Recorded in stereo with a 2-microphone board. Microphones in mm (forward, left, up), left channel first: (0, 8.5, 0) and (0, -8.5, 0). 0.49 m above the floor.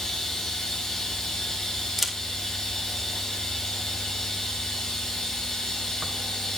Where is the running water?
40° left (ahead or behind), 2.5 m.